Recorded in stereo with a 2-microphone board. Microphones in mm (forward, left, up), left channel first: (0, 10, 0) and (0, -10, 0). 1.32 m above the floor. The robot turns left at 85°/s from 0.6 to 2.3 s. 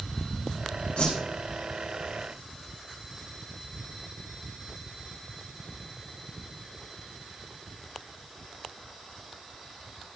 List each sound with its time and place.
1.0 s a whoosh: 85° left, 5.5 m; by 1.2 s 65° left (ahead or behind), 5.5 m